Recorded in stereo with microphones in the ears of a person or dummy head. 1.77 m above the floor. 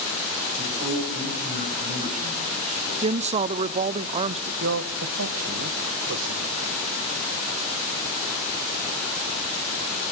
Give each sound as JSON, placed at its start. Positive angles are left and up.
{"t": 0.6, "sound": "a man speaking", "side_deg": -35, "distance_m": 9.5}
{"t": 3.0, "sound": "a woman speaking", "side_deg": -30, "distance_m": 0.5}
{"t": 4.6, "sound": "a man speaking", "side_deg": -80, "distance_m": 1.6}